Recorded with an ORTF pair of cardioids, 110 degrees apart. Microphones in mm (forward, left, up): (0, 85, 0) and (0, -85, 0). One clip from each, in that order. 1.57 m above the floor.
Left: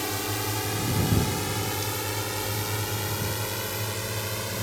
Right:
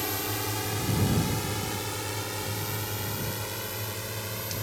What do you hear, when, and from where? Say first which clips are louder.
0.0 s a drone: left 2 dB; 10° left; by 4.6 s 25° left